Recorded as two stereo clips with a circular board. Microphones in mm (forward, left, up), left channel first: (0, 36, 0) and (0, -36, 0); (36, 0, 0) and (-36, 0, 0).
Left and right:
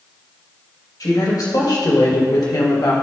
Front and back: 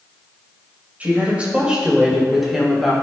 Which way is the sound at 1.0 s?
115° left.